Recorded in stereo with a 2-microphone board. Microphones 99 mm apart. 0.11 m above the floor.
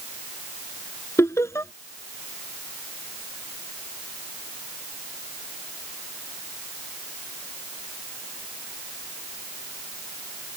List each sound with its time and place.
1.2 s laughter: 25° left (ahead or behind)